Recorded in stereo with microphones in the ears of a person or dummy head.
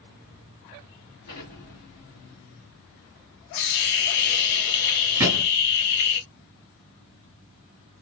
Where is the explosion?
40° left (ahead or behind), 2 m.